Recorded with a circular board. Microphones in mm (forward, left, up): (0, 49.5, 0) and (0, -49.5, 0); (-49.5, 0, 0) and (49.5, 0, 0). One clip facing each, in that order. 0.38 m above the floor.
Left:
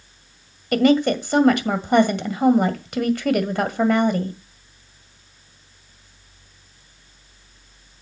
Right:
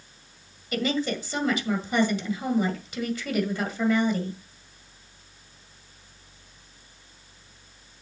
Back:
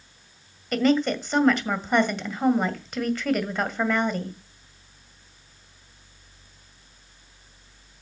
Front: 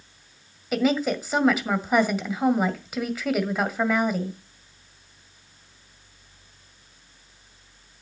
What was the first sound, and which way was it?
A woman speaking, 85° left.